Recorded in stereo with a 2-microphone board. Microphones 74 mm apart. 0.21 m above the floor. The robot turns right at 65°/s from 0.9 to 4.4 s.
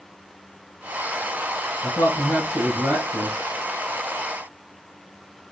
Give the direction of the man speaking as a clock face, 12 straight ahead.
8 o'clock.